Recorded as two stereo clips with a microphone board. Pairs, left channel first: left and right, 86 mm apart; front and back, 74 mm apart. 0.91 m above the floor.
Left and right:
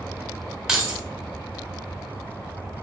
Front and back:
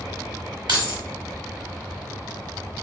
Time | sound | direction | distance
0.7 | keys jangling | 170° right | 1.2 m